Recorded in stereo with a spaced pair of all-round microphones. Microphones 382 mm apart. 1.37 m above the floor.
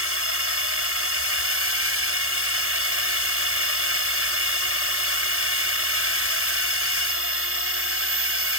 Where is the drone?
35° right (ahead or behind).